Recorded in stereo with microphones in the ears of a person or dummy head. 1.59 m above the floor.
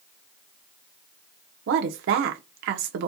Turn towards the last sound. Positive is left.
turn(degrees=-65)  # may be behind; listen again after turning